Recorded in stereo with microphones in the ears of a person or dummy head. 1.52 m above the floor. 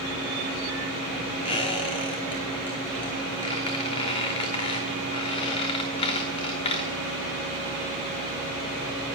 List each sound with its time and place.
1.4 s a squeak: 30° left (ahead or behind), 1.0 m